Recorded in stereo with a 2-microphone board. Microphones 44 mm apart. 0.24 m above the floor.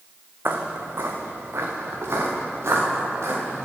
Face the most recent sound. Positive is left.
turn(degrees=-70)  # may be behind; listen again after turning